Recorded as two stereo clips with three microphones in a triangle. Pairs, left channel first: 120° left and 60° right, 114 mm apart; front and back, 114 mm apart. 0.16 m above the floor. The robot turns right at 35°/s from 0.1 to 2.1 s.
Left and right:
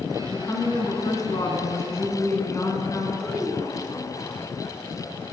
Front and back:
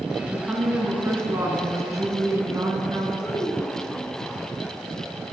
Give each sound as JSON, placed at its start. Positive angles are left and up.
{"t": 0.3, "sound": "a woman speaking", "azimuth_deg": 100, "distance_m": 1.9}
{"t": 3.2, "sound": "a child speaking", "azimuth_deg": 30, "distance_m": 1.1}